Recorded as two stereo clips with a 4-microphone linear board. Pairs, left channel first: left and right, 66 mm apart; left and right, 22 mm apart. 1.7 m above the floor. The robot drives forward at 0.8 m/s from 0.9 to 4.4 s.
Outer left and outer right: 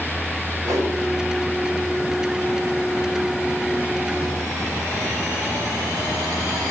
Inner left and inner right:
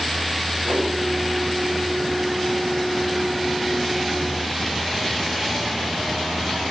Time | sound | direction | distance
0.6 | a whoosh | 60° right (ahead or behind) | 4.5 m